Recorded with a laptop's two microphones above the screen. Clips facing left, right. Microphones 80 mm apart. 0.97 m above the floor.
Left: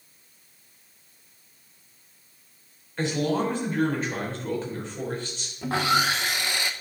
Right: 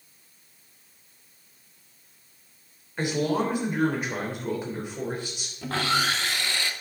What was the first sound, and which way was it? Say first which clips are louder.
A man speaking: even; 10° right (ahead or behind).